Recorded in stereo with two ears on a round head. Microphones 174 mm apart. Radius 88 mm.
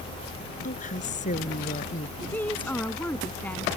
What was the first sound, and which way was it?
A woman speaking, 45° left (ahead or behind).